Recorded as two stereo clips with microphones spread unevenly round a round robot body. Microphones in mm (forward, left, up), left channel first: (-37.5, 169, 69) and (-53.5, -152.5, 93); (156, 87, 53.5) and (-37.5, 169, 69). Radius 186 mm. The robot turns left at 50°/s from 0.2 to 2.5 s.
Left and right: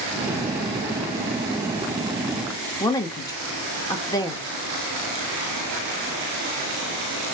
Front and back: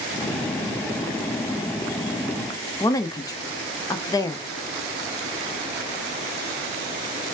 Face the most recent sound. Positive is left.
turn(degrees=25)